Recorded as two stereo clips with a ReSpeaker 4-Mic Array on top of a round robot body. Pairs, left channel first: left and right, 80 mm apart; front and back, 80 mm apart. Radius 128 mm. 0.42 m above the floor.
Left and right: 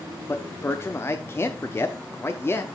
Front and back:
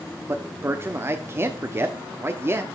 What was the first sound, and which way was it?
A man speaking, 135° left.